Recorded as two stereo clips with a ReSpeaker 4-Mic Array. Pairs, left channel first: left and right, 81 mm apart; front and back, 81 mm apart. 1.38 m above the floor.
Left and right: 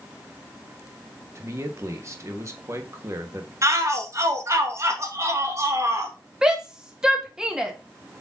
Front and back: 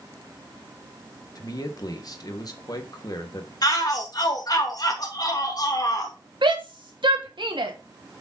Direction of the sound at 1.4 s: 40° right.